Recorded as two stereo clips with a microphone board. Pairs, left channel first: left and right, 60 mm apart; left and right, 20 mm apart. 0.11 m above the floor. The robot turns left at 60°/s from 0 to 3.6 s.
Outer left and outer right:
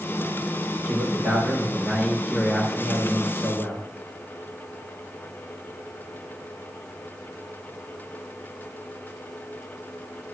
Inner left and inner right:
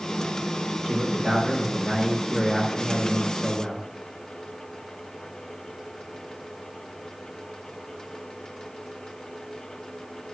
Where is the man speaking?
90° right, 3 m; by 3.9 s 105° left, 3 m.